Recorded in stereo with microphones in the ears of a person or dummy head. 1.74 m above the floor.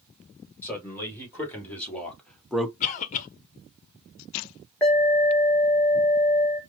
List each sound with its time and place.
0.6 s a man speaking: 15° left (ahead or behind), 2.5 m; by 2.7 s centre (ahead or behind), 0.7 m
2.8 s a cough: 45° left (ahead or behind), 0.8 m
4.8 s an alarm: 10° left (ahead or behind), 1.8 m